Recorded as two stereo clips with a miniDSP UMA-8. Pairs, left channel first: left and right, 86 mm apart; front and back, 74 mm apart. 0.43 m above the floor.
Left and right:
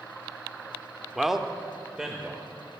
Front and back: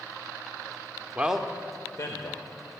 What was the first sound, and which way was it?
A man speaking, straight behind.